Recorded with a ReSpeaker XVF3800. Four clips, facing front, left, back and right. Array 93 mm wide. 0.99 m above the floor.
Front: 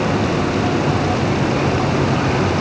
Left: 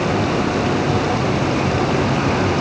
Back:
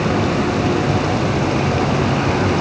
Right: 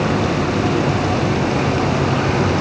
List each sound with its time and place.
Only background noise.